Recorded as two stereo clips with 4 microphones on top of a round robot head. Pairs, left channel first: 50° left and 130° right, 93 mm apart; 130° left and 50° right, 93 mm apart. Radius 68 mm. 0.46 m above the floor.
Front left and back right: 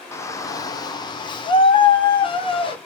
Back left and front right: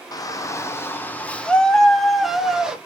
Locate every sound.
0.1 s a shout: 100° left, 1.1 m; by 2.8 s 30° left, 1.6 m